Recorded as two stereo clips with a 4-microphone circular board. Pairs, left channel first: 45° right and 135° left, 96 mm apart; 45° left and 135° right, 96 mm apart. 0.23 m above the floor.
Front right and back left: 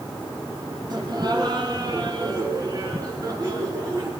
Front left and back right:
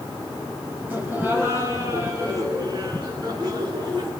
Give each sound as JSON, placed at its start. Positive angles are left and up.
{"t": 0.9, "sound": "laughter", "azimuth_deg": 160, "distance_m": 2.5}